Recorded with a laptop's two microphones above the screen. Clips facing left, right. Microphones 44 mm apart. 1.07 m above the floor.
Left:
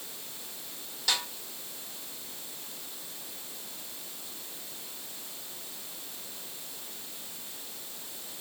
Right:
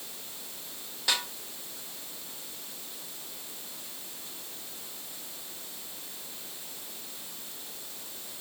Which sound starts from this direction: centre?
A snare drum, at 1.1 s.